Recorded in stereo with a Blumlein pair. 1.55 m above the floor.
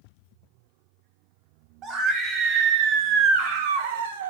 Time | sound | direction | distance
1.8 | a scream | 30° right | 3 m